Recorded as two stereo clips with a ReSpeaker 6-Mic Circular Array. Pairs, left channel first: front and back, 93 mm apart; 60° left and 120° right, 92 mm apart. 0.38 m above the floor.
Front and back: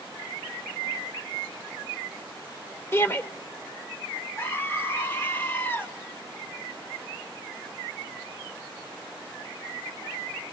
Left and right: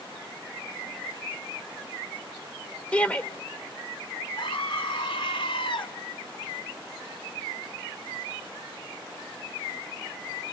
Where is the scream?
65° left, 2.5 m.